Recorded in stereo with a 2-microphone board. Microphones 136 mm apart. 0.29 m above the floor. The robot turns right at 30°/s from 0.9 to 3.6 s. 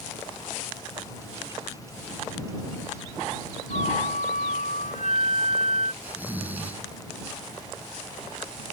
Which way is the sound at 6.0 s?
15° right (ahead or behind).